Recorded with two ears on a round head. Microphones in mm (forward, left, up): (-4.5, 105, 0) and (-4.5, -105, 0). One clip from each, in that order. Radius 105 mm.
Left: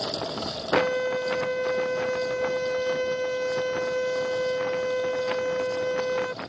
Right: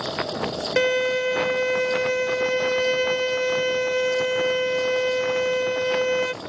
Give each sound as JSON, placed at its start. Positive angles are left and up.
{"t": 0.8, "sound": "a violin", "side_deg": -25}